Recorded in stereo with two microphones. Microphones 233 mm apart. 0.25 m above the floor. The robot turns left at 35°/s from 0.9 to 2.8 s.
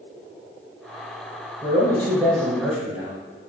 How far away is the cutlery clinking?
I don't hear cutlery clinking.